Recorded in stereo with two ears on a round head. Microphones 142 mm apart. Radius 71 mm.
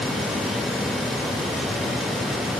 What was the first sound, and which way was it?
Only background noise.